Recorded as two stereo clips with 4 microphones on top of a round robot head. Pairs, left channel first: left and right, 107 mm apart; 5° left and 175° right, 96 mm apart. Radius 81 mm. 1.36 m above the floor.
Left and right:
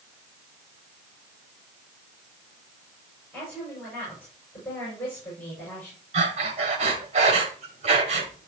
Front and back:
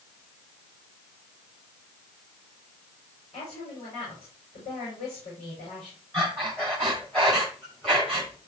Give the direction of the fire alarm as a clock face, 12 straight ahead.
I don't hear a fire alarm.